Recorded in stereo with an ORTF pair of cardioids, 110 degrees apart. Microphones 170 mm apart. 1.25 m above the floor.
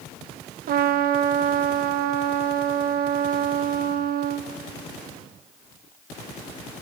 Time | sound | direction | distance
0.7 | a trumpet | 65° right | 1.0 m